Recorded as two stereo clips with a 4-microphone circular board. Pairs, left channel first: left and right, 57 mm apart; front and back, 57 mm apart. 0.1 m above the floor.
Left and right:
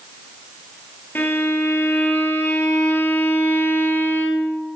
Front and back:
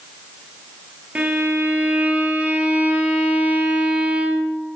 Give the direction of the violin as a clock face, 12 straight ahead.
8 o'clock.